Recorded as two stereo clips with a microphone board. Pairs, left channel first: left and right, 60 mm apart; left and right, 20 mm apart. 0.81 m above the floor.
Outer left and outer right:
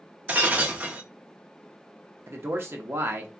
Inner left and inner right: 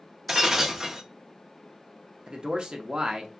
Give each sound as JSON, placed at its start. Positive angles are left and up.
{"t": 0.3, "sound": "breaking glass", "side_deg": -25, "distance_m": 0.7}
{"t": 2.3, "sound": "a man speaking", "side_deg": -40, "distance_m": 0.7}